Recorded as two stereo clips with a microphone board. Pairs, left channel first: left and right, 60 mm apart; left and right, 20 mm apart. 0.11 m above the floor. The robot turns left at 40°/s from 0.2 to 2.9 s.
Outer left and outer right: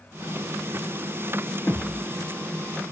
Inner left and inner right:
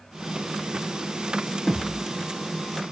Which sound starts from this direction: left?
A thud, at 1.7 s.